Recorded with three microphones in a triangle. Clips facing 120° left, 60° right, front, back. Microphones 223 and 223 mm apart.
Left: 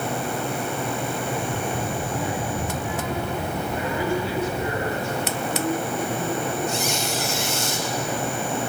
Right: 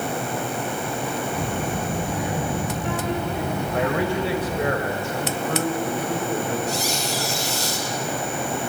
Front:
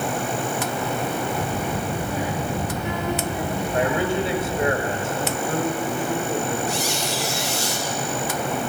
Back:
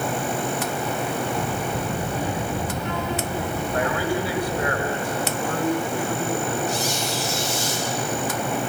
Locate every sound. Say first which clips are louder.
1.3 s a child speaking: right 1 dB, even; 85° right, 7.5 m; by 4.7 s 65° right, 7 m
3.7 s a man speaking: right 3 dB, front 3 dB; 65° right, 3.5 m
6.7 s a squeak: even, even; 10° right, 3.5 m